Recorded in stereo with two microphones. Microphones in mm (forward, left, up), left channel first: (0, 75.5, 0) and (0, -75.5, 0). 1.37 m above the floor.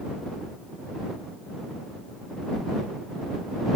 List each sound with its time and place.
Only background noise.